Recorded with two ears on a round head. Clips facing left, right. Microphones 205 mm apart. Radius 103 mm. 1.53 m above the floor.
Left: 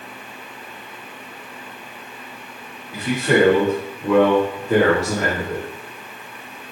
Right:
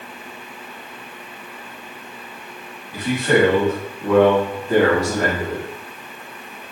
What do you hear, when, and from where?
2.9 s a man speaking: centre (ahead or behind), 4.5 m; by 5.7 s 10° left (ahead or behind), 3 m